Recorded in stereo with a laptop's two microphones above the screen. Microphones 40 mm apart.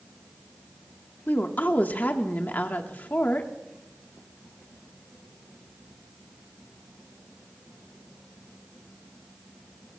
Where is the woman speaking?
50° left (ahead or behind), 1.7 m.